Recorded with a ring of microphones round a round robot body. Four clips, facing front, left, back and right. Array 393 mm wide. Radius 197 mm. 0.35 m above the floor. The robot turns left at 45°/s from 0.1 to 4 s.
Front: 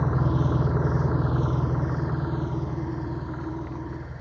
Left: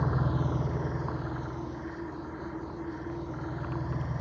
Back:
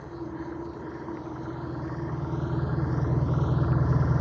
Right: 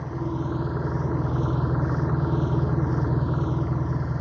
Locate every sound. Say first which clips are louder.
0.0 s an engine running: right 1 dB, front 10 dB; 15° left; by 4.2 s 160° right